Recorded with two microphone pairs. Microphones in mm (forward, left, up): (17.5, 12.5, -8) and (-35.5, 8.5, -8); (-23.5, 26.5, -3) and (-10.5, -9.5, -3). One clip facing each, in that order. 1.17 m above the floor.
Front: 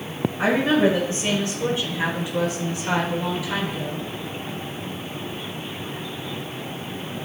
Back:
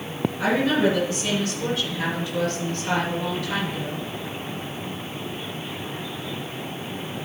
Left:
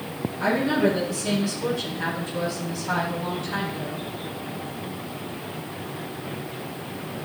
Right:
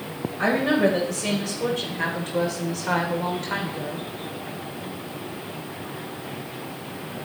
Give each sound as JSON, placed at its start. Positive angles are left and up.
{"t": 0.4, "sound": "a woman speaking", "azimuth_deg": -50, "distance_m": 4.5}